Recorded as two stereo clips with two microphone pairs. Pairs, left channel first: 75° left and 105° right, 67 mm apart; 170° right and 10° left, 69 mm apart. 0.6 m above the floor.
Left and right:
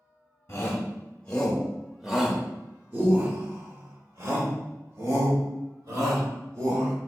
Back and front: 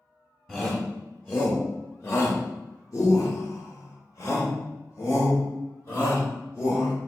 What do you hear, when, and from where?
0.5 s a shout: 115° left, 1.1 m; by 7.0 s 115° right, 3 m